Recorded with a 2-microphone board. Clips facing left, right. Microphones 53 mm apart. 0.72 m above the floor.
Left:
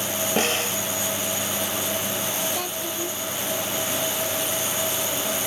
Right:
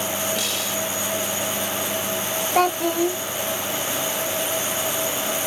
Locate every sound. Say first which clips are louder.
0.4 s a snare drum: left 3 dB; 40° left (ahead or behind)
2.5 s a child speaking: right 10 dB; 60° right (ahead or behind)